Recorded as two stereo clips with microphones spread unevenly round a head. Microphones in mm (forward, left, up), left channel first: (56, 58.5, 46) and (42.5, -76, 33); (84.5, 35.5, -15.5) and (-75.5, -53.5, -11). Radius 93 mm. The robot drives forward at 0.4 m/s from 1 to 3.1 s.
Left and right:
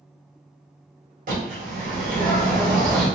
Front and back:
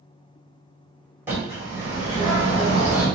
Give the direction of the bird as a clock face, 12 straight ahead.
2 o'clock.